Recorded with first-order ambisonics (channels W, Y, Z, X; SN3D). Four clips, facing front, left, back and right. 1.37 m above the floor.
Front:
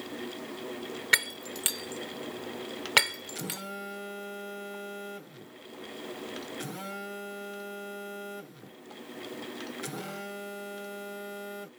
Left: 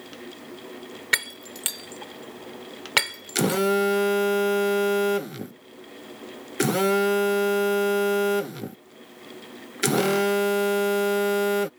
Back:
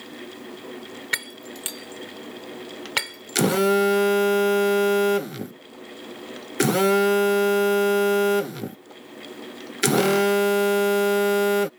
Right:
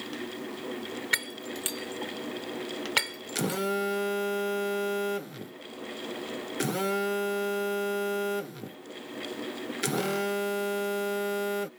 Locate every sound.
1.1 s breaking glass: 65° left
3.4 s a phone buzzing: 155° left